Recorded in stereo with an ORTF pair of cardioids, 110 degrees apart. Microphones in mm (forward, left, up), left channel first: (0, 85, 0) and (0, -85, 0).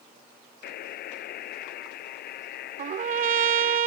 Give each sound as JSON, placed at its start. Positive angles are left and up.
{"t": 0.6, "sound": "a buzzer", "azimuth_deg": 70}
{"t": 2.8, "sound": "a trumpet", "azimuth_deg": -55}